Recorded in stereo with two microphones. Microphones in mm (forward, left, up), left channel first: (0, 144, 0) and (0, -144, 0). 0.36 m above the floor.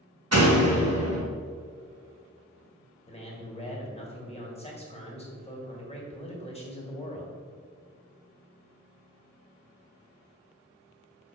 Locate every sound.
0.3 s a door slam: 60° right (ahead or behind), 2.0 m
3.1 s a man speaking: 20° left (ahead or behind), 2 m